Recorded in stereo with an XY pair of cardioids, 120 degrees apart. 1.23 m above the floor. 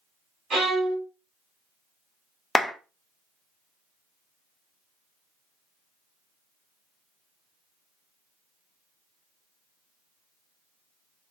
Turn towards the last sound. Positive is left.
turn(degrees=5)